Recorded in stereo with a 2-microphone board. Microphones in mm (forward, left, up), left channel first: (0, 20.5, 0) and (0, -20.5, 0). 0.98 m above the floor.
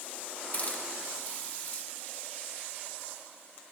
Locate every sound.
0.5 s a hiss: 45° left (ahead or behind), 1.7 m